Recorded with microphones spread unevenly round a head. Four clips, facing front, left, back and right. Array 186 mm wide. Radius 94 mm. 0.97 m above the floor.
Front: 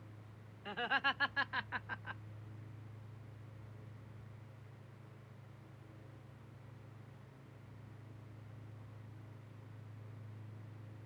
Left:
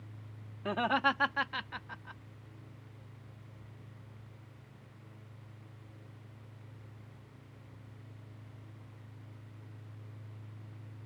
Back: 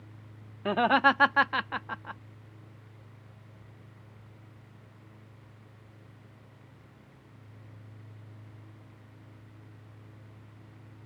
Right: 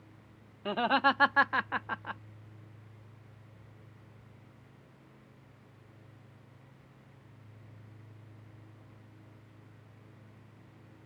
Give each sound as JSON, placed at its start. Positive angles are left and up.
{"t": 0.7, "sound": "laughter", "azimuth_deg": -175}